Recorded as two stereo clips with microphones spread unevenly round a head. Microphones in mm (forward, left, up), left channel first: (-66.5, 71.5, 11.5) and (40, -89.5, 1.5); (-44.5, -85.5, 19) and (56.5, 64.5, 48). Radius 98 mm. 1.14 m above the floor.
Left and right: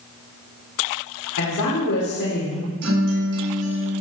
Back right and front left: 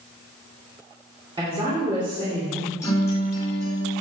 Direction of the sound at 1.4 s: 120° left.